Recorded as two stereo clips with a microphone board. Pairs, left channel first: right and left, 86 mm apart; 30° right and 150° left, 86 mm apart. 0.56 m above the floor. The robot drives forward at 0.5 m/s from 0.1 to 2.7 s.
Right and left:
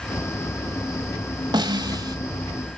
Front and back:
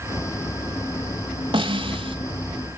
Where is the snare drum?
130° left, 1.5 m; by 2.2 s 135° left, 1.7 m.